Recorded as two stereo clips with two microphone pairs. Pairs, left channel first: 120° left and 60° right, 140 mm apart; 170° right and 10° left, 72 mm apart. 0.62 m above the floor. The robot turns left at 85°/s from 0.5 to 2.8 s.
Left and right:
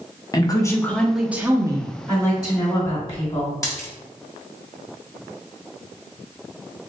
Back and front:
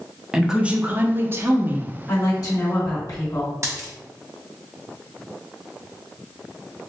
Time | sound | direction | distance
0.3 | a woman speaking | 85° left | 0.6 m
2.1 | a woman speaking | 125° right | 1.4 m
3.6 | a dropped coin | 55° left | 1.1 m